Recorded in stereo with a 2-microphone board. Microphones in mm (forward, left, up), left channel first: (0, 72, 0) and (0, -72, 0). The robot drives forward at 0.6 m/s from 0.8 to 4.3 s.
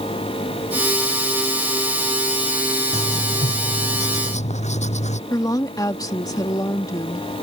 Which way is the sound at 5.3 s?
25° left (ahead or behind).